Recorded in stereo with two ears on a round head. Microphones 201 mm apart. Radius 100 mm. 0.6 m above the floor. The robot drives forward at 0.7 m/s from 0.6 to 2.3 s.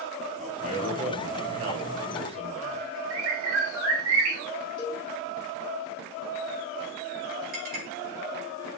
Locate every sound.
0.4 s a man speaking: 35° right (ahead or behind), 4 m; by 2.9 s 30° right (ahead or behind), 5 m
3.1 s a bird: 70° right (ahead or behind), 4 m
4.8 s a cowbell: 20° left (ahead or behind), 2 m
7.5 s a clink: 40° right (ahead or behind), 5 m